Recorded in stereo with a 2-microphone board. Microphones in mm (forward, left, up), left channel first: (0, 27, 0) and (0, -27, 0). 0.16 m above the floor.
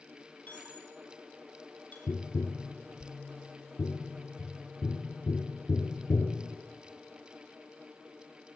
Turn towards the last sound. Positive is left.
turn(degrees=65)  # may be behind; listen again after turning